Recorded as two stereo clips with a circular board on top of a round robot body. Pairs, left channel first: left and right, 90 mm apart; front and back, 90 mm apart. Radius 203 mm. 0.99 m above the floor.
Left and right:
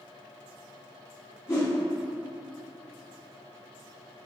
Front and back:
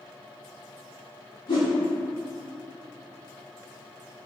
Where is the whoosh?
30° left, 0.7 m.